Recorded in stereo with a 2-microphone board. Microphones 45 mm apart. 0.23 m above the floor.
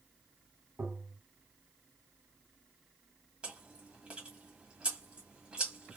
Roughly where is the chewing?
Right.